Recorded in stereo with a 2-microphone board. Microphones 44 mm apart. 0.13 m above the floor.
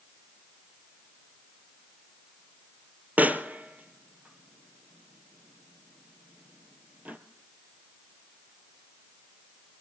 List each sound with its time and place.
3.2 s a pop: 40° right (ahead or behind), 1.0 m